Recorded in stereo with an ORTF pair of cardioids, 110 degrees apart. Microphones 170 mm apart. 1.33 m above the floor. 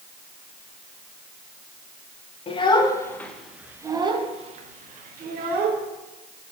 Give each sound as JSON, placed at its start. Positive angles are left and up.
{"t": 2.5, "sound": "a child speaking", "azimuth_deg": 35, "distance_m": 1.4}